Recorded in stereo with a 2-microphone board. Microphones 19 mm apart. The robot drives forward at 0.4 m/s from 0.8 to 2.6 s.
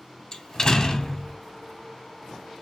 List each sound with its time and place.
0.3 s a door slam: 30° left (ahead or behind), 1.3 m